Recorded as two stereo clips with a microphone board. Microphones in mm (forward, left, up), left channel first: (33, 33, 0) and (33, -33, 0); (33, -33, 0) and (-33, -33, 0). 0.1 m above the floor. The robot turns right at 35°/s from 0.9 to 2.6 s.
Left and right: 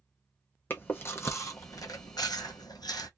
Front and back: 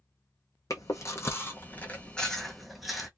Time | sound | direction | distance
0.7 | chewing | 30° left | 0.8 m